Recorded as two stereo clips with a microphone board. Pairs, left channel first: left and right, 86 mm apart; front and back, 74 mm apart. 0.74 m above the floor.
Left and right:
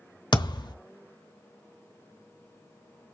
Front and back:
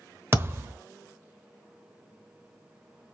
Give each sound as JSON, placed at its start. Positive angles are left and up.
{"t": 0.3, "sound": "a thud", "azimuth_deg": 125, "distance_m": 1.0}